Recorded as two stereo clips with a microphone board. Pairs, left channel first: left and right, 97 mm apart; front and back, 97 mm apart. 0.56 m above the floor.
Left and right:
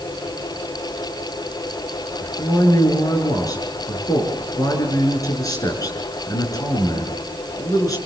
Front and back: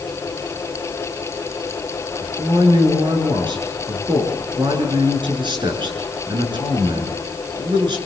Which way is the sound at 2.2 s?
145° left.